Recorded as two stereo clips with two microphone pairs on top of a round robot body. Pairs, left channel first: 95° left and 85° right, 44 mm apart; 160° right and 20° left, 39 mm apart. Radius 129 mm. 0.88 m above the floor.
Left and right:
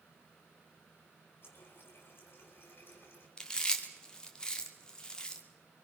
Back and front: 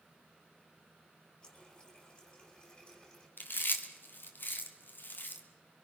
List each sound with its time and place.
1.4 s a running tap: 135° left, 5.5 m
3.4 s chewing: 165° left, 2.5 m